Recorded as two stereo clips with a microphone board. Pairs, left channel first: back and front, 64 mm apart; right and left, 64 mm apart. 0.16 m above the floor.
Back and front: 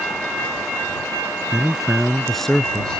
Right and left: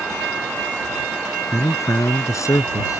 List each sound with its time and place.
1.5 s a man speaking: 75° right; by 3.0 s 105° right